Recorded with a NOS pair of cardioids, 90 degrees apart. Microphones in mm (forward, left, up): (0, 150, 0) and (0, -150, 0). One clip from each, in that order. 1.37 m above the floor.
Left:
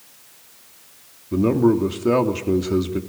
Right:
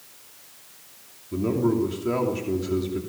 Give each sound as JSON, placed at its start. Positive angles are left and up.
{"t": 1.3, "sound": "a man speaking", "azimuth_deg": 45, "distance_m": 3.0}